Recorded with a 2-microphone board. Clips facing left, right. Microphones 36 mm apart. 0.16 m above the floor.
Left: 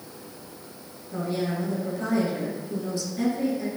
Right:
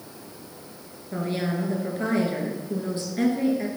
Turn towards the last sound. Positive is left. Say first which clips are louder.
# right 1 dB
turn(degrees=-40)  # may be behind; listen again after turning